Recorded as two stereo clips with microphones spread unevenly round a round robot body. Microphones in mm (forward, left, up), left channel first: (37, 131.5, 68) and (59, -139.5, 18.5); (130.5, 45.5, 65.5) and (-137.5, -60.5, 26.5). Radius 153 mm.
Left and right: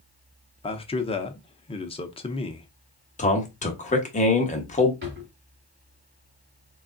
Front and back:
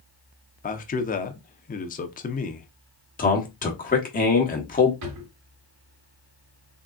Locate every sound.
0.6 s a man speaking: 30° left, 0.7 m
3.2 s a man speaking: 45° left, 1.1 m
5.0 s a drawer: 145° right, 2 m